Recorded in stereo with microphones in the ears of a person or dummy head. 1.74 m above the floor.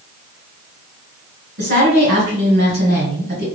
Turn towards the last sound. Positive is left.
turn(degrees=-50)  # may be behind; listen again after turning